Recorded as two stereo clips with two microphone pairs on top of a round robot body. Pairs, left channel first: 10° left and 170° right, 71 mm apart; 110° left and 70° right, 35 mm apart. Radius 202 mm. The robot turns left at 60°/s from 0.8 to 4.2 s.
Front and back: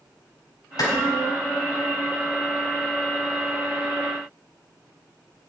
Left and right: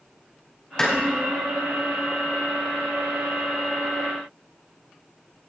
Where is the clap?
40° left, 4.5 m; by 0.9 s 35° left, 4.5 m.